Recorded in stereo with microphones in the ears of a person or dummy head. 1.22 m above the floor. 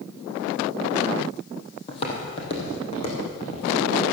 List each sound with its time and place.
1.9 s footsteps: 25° left (ahead or behind), 2.5 m; by 3.7 s 30° left (ahead or behind), 4.5 m